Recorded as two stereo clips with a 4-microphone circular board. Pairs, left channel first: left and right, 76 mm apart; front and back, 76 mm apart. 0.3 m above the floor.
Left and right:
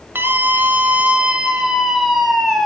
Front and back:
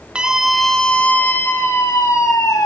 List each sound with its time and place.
0.1 s a scream: 115° right, 1.4 m; by 2.7 s 5° left, 2 m